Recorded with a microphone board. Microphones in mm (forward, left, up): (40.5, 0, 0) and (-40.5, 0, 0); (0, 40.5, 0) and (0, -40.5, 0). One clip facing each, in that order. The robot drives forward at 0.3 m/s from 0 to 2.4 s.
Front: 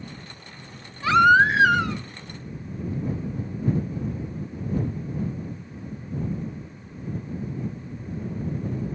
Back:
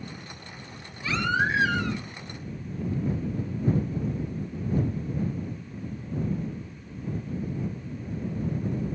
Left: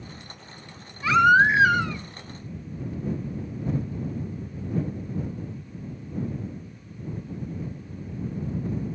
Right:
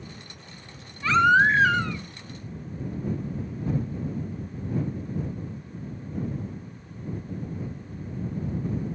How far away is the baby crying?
About 2.5 m.